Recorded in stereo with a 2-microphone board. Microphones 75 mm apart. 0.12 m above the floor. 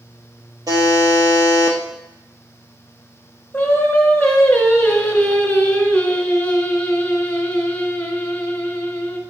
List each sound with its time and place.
0.7 s a buzzer: 55° right (ahead or behind), 1.6 m
3.5 s singing: 20° left (ahead or behind), 1.2 m